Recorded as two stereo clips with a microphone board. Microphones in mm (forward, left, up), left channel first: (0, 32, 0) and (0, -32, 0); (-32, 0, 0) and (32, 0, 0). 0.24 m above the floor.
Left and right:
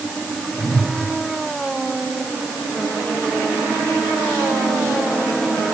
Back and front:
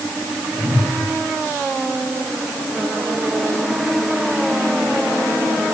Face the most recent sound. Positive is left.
turn(degrees=60)